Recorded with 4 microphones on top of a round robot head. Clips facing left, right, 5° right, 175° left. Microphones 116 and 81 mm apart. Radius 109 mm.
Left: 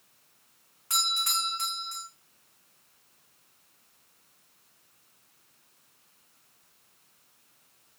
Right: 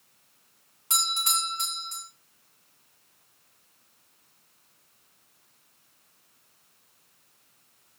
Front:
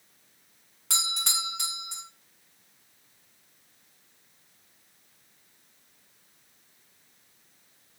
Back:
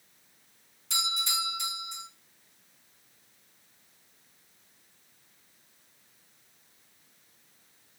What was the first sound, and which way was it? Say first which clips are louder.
A doorbell: right 2 dB, back 1 dB; 25° right.